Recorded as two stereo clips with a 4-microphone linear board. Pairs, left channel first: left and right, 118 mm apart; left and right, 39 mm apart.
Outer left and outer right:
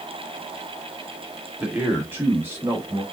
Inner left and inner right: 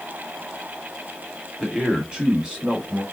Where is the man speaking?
15° right (ahead or behind), 1.2 m; by 3.0 s 20° right (ahead or behind), 1.4 m.